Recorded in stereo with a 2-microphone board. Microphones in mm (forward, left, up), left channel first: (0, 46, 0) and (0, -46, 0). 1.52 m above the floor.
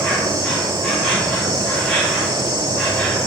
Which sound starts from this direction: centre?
An insect, at 0.0 s.